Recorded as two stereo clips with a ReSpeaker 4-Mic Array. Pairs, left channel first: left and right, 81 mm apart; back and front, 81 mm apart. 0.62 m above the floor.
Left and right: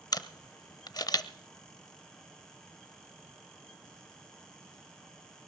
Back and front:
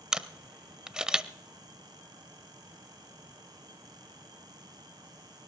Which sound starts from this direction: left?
A camera shutter, at 0.1 s.